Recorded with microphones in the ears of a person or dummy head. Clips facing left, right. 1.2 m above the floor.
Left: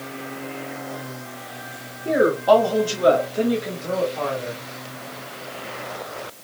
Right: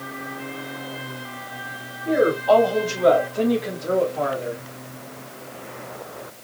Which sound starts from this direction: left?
A woman speaking, at 2.0 s.